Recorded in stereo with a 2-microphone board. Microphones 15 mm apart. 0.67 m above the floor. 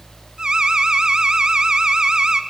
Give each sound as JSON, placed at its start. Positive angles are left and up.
{"t": 0.4, "sound": "an alarm", "side_deg": -50, "distance_m": 1.4}